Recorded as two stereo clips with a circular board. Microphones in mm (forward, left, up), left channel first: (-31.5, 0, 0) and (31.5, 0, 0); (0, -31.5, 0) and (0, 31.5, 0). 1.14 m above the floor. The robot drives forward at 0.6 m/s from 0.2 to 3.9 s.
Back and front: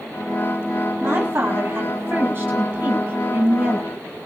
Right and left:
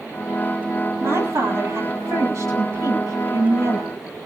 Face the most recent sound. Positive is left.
turn(degrees=65)